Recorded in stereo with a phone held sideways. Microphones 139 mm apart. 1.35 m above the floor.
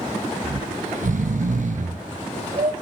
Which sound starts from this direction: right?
Snoring, at 0.4 s.